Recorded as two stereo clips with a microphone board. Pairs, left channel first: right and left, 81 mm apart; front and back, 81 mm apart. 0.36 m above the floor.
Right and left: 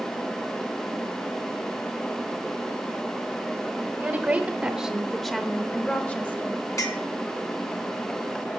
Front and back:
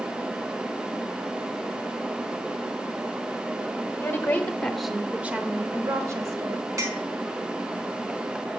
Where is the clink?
135° right, 2.5 m.